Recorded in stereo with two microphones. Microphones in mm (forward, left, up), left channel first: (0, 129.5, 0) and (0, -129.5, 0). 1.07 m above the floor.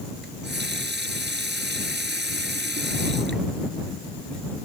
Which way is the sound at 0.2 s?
40° right (ahead or behind).